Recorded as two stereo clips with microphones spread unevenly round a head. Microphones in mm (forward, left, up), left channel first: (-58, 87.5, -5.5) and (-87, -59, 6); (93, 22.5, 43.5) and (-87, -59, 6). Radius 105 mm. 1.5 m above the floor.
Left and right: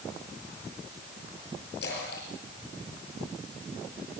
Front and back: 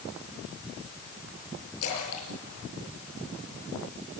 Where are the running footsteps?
I don't hear running footsteps.